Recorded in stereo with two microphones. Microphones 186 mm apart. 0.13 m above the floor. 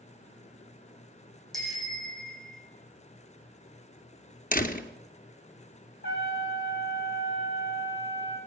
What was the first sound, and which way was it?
A bicycle bell, centre (ahead or behind).